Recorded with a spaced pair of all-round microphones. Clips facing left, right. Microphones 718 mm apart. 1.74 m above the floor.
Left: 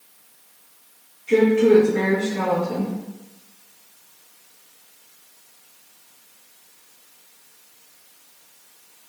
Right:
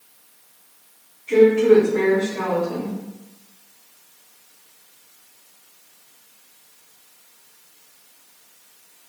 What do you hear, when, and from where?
1.3 s a woman speaking: 45° left (ahead or behind), 1.1 m